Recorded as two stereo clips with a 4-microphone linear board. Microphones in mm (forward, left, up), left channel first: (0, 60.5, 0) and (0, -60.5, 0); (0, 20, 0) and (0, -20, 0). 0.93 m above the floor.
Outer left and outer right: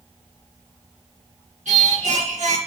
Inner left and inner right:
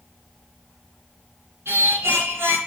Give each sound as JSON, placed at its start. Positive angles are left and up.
{"t": 1.6, "sound": "singing", "side_deg": -80, "distance_m": 2.5}